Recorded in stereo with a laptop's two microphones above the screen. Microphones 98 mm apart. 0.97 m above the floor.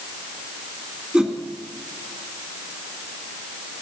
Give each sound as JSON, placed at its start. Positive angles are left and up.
{"t": 1.1, "sound": "a whoosh", "side_deg": -10, "distance_m": 2.5}